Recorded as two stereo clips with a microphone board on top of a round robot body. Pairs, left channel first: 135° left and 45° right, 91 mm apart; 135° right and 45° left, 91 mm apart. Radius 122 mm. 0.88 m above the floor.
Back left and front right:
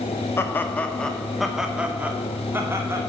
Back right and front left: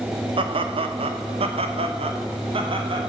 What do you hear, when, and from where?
0.4 s laughter: 70° left, 1.4 m; by 3.0 s 15° left, 2 m